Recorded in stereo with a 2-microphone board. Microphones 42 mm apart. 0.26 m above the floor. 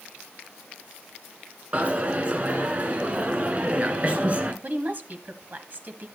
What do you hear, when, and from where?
1.7 s a dropped coin: 35° right (ahead or behind), 1.5 m
4.6 s a woman speaking: 45° right (ahead or behind), 1.5 m